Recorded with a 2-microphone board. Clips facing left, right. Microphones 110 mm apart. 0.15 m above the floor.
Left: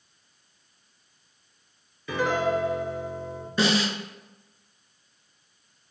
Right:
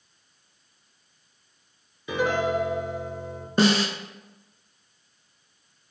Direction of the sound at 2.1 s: 20° right (ahead or behind).